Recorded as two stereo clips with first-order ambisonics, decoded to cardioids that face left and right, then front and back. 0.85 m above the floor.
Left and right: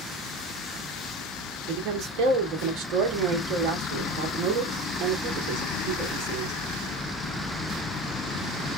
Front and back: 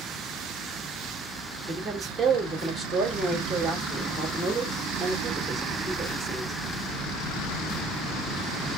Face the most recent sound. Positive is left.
turn(degrees=-90)